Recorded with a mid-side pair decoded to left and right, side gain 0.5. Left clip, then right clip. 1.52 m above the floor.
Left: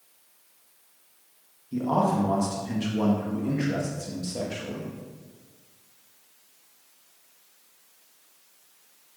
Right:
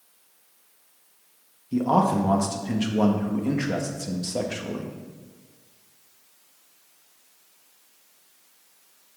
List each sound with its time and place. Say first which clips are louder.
1.7 s a man speaking: right 3 dB; 35° right, 1.7 m